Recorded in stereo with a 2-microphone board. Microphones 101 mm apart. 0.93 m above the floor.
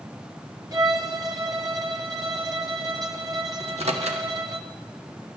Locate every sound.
0.7 s a violin: 35° right (ahead or behind), 0.9 m
3.6 s a microwave: 80° right, 1.2 m